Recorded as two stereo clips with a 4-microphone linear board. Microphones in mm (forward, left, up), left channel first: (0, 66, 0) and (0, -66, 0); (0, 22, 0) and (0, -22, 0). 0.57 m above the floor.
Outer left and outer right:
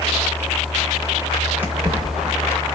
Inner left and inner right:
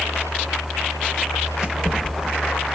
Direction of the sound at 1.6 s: 15° right (ahead or behind).